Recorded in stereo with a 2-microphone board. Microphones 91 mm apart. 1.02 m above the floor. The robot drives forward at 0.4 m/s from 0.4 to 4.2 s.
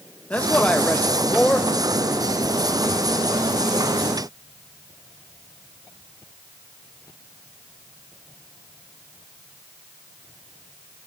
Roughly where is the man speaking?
Centre.